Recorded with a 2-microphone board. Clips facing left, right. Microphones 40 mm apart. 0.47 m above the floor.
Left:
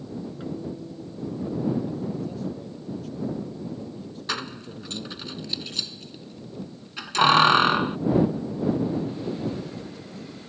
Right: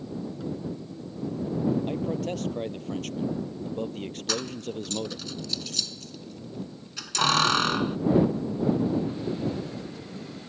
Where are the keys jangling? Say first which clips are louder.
Even; 25° left (ahead or behind).